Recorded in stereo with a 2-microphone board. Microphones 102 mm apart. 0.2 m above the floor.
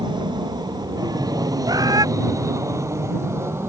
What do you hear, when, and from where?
0.0 s an aircraft: 45° right (ahead or behind); by 3.7 s 25° right (ahead or behind)
1.7 s a bird: 40° right (ahead or behind)